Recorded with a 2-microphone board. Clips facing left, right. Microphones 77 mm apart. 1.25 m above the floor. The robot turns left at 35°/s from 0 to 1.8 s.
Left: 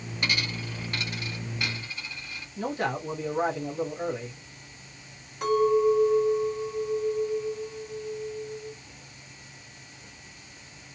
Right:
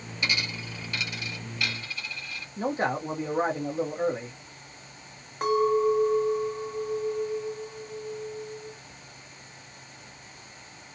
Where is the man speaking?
30° right (ahead or behind), 0.9 m.